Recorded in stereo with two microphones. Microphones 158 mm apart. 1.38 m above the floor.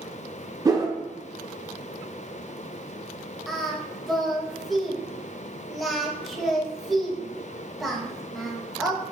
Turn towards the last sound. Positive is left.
turn(degrees=0)  # may be behind; listen again after turning